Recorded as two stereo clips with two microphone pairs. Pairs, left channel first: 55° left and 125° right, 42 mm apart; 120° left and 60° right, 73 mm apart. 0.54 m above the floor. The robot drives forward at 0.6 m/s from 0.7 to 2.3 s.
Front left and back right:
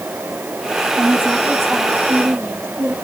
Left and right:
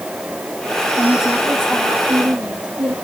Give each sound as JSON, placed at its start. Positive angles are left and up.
{"t": 1.0, "sound": "a woman speaking", "azimuth_deg": -120, "distance_m": 7.5}